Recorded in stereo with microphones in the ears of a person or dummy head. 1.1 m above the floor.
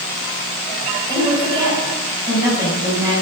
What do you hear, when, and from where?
1.1 s a woman speaking: 25° right (ahead or behind), 7.5 m